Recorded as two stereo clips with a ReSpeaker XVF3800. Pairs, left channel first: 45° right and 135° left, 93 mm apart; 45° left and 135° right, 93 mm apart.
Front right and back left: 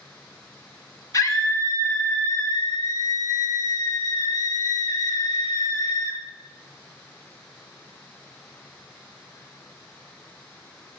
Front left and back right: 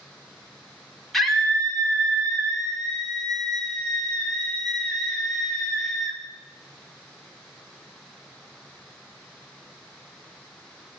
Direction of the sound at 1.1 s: 40° right.